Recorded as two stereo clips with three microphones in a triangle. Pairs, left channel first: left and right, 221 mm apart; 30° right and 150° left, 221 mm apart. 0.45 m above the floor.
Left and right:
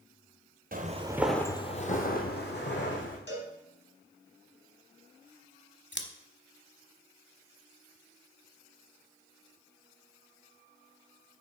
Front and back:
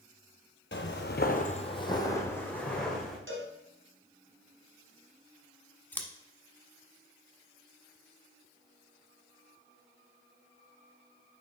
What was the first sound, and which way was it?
Footsteps, 50° right.